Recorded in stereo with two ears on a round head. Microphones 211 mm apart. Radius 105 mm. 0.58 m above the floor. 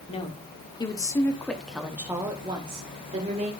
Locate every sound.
0.1 s a woman speaking: 25° left (ahead or behind), 1.8 m; by 3.5 s 30° right (ahead or behind), 1.8 m